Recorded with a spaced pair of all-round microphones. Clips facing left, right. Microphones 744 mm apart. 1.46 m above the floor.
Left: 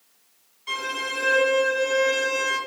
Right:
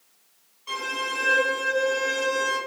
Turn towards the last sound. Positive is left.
turn(degrees=50)  # may be behind; listen again after turning